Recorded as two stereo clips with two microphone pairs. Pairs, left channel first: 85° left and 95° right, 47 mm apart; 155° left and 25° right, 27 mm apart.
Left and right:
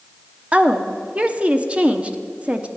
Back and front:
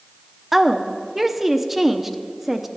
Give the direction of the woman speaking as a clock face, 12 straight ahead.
3 o'clock.